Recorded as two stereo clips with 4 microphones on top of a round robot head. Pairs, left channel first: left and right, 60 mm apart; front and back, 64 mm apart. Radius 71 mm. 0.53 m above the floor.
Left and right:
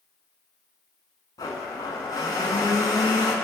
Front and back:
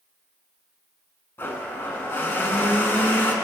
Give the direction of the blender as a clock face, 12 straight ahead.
10 o'clock.